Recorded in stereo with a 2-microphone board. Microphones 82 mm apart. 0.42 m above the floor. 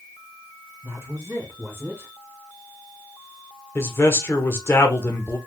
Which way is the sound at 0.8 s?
30° right (ahead or behind).